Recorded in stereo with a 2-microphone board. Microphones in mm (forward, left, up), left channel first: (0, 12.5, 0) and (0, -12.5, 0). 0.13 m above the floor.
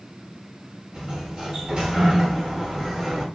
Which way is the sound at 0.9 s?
30° right (ahead or behind).